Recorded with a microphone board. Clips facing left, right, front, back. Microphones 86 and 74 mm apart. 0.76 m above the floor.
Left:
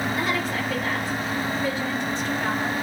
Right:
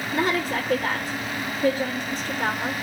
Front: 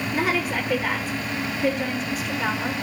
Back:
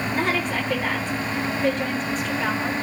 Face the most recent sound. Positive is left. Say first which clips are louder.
# right 2 dB, front 1 dB
turn(degrees=-80)